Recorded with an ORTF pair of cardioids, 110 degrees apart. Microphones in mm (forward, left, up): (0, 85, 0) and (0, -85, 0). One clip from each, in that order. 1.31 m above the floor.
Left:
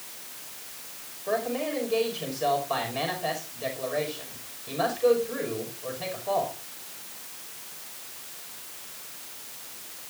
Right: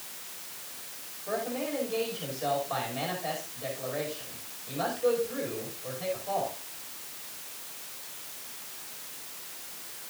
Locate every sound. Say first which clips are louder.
1.3 s a man speaking: left 4 dB; 35° left, 5.5 m